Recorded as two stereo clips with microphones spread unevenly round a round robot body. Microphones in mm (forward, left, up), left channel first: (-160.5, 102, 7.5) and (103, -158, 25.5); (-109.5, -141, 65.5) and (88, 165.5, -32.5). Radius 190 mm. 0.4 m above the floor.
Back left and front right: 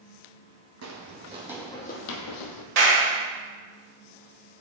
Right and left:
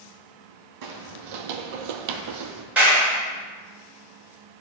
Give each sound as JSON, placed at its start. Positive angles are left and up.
{"t": 0.8, "sound": "footsteps", "azimuth_deg": 10, "distance_m": 1.0}
{"t": 2.8, "sound": "a clap", "azimuth_deg": -20, "distance_m": 1.6}